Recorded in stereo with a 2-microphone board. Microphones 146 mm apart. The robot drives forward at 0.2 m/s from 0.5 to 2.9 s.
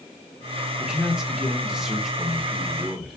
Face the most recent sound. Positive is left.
turn(degrees=-5)  # may be behind; listen again after turning